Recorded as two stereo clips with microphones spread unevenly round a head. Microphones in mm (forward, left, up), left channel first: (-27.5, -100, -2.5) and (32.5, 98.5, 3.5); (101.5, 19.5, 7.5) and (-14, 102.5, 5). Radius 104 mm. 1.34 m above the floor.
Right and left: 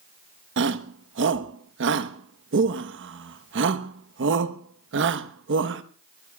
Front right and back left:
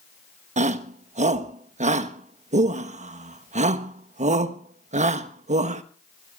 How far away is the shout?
About 1.2 m.